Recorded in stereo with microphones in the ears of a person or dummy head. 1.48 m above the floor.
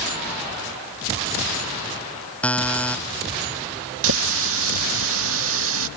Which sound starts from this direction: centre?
A buzzer, at 2.4 s.